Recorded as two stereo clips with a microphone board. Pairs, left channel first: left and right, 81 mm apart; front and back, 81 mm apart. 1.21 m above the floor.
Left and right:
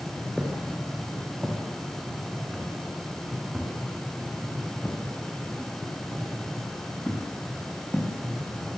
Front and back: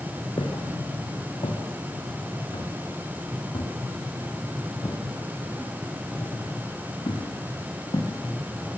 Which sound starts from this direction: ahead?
Footsteps, at 0.4 s.